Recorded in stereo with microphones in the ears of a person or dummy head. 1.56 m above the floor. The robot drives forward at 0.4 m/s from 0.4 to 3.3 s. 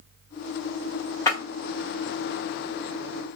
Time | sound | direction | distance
1.3 | breaking glass | 20° left (ahead or behind) | 1.4 m